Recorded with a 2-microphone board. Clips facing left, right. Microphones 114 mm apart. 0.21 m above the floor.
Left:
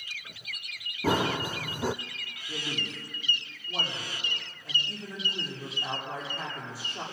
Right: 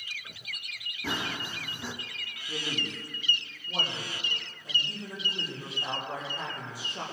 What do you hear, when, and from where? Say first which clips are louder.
1.0 s running footsteps: left 8 dB; 45° left (ahead or behind), 0.7 m
2.5 s a man speaking: right 1 dB; 15° right (ahead or behind), 7.5 m